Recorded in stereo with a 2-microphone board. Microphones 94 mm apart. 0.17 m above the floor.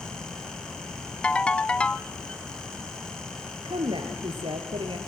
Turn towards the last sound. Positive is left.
turn(degrees=-65)  # may be behind; listen again after turning